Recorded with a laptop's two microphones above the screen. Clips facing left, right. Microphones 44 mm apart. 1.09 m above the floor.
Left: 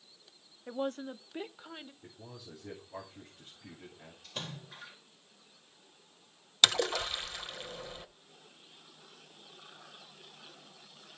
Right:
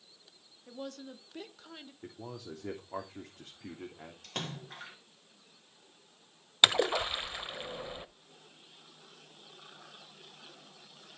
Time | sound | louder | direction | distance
0.7 | a woman speaking | left 7 dB | 50° left (ahead or behind) | 0.8 m
2.0 | a man speaking | right 6 dB | 80° right | 3 m
4.2 | a splash | right 3 dB | 75° right (ahead or behind) | 3 m
6.6 | a splash | right 2 dB | 20° right (ahead or behind) | 0.9 m